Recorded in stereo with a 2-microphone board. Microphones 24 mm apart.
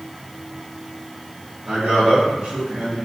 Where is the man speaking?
85° right, 1.5 m; by 3.1 s 60° right (ahead or behind), 1.9 m.